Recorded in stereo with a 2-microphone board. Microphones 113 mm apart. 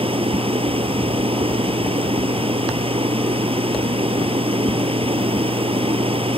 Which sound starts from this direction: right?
Running water, at 0.0 s.